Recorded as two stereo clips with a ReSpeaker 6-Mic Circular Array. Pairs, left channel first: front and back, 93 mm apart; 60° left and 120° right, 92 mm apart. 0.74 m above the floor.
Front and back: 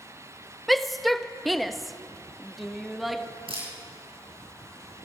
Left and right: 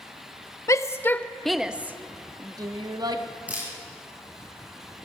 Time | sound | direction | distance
0.7 | a shout | 90° left | 0.7 m
3.5 | a camera shutter | 165° left | 7.5 m